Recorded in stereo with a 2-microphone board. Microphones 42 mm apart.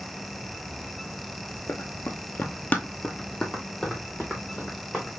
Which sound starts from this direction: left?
Running footsteps, at 1.7 s.